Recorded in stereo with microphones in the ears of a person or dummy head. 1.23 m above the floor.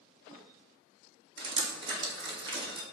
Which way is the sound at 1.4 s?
35° right (ahead or behind).